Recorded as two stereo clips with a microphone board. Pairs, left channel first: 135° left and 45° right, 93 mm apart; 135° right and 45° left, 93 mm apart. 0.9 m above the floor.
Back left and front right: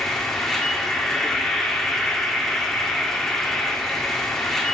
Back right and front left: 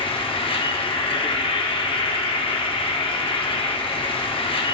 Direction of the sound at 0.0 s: 140° right.